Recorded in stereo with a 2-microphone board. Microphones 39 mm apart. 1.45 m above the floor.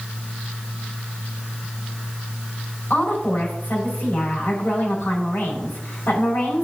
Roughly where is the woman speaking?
Left.